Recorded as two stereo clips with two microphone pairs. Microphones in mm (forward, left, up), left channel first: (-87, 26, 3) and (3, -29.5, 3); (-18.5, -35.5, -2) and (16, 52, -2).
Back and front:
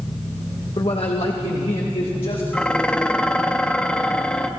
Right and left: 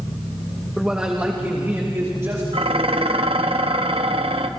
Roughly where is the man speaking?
Behind left.